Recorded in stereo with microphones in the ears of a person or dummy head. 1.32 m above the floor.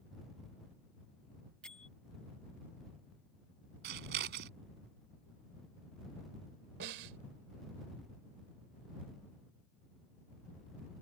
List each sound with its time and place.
1.6 s a bell: 5° left (ahead or behind)
3.8 s scissors: 65° right (ahead or behind)
6.8 s a snare drum: 70° right (ahead or behind)